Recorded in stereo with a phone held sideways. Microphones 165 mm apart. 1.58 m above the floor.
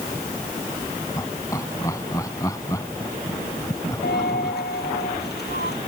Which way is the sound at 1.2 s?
20° left (ahead or behind).